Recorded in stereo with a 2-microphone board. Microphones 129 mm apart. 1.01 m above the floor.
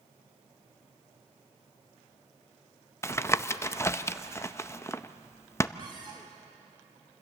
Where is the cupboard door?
40° right (ahead or behind), 3.5 m.